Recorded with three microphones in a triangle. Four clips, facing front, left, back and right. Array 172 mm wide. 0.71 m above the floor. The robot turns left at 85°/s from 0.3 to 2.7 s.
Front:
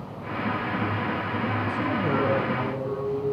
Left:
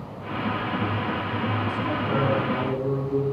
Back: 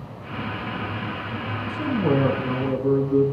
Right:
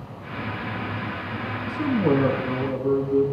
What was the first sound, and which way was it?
A man speaking, 110° right.